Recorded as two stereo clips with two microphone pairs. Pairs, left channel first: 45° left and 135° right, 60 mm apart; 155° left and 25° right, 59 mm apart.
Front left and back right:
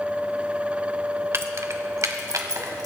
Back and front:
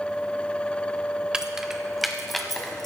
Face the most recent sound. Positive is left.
turn(degrees=-120)